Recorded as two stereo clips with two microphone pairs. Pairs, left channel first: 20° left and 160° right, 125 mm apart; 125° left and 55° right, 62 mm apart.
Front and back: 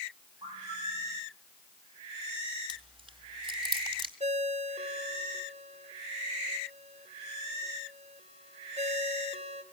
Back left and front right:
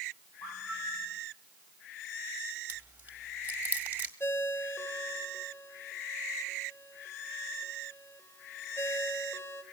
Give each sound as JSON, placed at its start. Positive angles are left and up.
{"t": 0.4, "sound": "a bird", "azimuth_deg": 150, "distance_m": 3.5}
{"t": 2.7, "sound": "chewing", "azimuth_deg": -115, "distance_m": 2.0}
{"t": 4.2, "sound": "a ringtone", "azimuth_deg": 175, "distance_m": 2.5}